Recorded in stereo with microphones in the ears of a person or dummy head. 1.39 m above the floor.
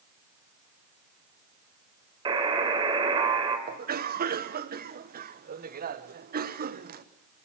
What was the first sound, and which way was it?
A buzzer, 25° right (ahead or behind).